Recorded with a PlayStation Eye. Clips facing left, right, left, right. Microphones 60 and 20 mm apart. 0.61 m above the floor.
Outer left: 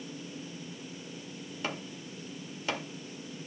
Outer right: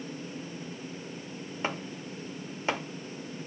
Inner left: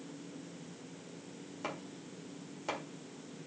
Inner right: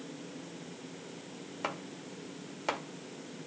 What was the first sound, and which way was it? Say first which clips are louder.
Chopping: outer right 4 dB, inner right 4 dB; 30° right (ahead or behind).